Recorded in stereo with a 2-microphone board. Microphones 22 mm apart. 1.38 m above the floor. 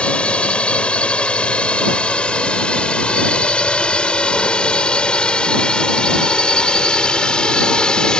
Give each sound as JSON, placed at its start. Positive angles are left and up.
{"t": 0.0, "sound": "a drone", "side_deg": 55}